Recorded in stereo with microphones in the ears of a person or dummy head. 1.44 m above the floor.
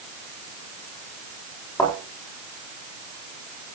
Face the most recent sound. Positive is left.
turn(degrees=15)  # may be behind; listen again after turning